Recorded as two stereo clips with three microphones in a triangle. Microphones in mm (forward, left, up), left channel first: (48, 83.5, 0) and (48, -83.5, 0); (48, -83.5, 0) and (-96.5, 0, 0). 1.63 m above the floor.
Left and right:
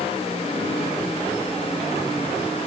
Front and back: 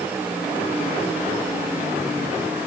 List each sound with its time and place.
Only background noise.